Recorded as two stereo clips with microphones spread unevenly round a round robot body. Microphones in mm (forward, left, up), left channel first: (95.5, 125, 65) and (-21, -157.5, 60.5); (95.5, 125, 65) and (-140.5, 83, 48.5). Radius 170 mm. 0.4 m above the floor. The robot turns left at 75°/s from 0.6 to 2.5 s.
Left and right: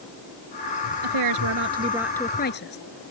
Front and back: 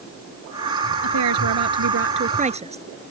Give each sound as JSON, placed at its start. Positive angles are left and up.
{"t": 1.0, "sound": "a woman speaking", "azimuth_deg": -125}